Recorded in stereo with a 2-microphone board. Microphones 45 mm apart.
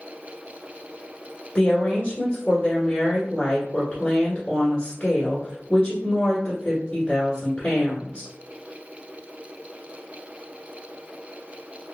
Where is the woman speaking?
25° left (ahead or behind), 1.4 m.